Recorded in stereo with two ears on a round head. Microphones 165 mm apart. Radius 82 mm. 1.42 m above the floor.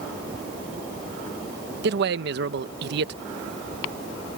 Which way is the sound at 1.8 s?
60° right (ahead or behind).